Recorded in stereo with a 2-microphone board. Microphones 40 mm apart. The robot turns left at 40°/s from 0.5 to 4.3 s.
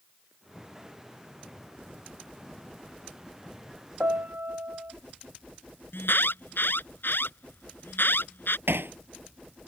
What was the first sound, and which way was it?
A piano, 55° right (ahead or behind).